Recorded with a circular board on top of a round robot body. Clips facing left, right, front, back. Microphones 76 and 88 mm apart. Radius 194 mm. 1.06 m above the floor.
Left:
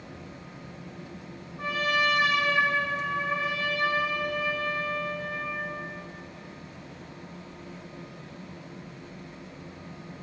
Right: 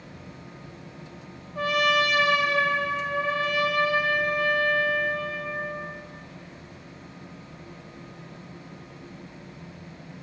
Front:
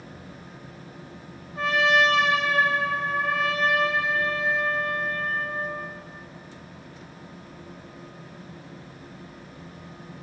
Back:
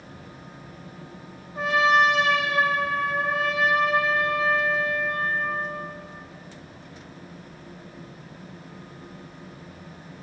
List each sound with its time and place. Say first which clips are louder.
1.6 s a trumpet: right 4 dB, back 1 dB; 100° right, 1.7 m